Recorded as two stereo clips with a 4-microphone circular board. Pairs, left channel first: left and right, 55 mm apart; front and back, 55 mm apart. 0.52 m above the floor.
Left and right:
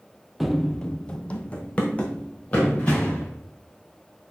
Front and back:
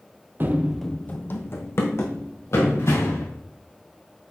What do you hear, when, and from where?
0.4 s running footsteps: 175° right, 0.6 m; by 3.3 s 25° left, 3 m